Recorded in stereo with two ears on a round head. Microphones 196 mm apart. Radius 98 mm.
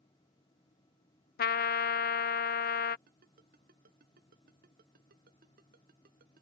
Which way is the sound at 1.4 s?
45° left (ahead or behind).